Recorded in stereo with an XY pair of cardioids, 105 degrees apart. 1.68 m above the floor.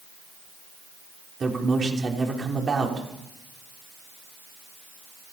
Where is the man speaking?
35° right, 6 m.